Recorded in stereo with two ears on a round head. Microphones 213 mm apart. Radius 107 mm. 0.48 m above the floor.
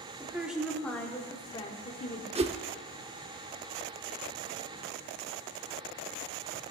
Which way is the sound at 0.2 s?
10° right (ahead or behind).